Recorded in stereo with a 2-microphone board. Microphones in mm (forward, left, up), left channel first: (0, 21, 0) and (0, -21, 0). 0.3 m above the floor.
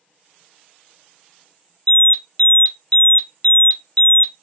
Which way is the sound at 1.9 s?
30° left (ahead or behind).